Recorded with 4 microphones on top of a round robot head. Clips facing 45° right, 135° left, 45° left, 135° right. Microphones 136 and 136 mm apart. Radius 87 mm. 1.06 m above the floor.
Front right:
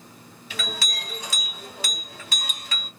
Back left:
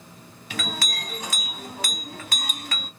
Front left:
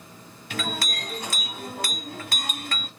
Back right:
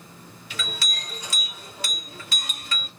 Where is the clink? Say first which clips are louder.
Back left 2 dB, front left 6 dB; 90° left, 1.4 m.